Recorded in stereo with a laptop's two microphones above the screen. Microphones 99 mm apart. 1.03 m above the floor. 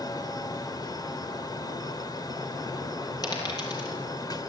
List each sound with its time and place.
0.0 s a fan: 40° left (ahead or behind), 1.6 m
3.2 s a dropped coin: 40° left (ahead or behind), 8.5 m